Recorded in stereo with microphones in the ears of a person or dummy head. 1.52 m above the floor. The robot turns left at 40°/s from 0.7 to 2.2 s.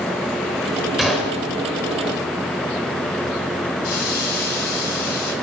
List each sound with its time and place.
1.0 s a gunshot: centre (ahead or behind), 4 m; by 1.4 s 20° left (ahead or behind), 4 m
3.8 s a hiss: 50° left (ahead or behind), 8 m